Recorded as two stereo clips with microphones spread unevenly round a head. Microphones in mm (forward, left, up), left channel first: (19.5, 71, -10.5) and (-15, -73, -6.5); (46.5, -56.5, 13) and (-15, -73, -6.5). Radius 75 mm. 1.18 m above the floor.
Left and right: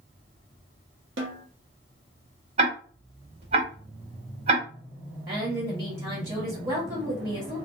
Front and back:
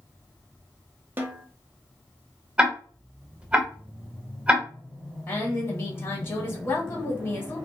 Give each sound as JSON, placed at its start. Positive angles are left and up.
{"t": 1.2, "sound": "a snare drum", "azimuth_deg": -115, "distance_m": 0.8}
{"t": 2.6, "sound": "ticking", "azimuth_deg": -80, "distance_m": 1.3}
{"t": 5.3, "sound": "a woman speaking", "azimuth_deg": -45, "distance_m": 1.5}